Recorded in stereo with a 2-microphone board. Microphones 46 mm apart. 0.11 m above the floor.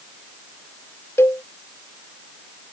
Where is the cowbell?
55° left (ahead or behind).